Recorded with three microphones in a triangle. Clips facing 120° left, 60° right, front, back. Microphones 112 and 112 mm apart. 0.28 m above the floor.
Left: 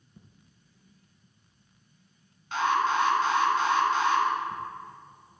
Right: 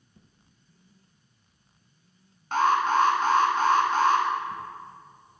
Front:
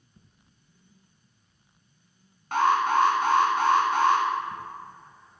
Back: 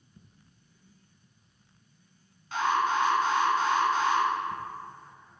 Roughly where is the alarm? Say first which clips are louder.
Right 3 dB, front 4 dB; ahead.